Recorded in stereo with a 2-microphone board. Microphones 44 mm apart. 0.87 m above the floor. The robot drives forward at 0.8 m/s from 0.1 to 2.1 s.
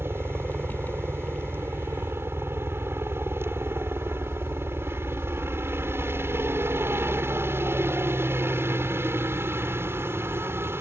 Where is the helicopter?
65° right (ahead or behind).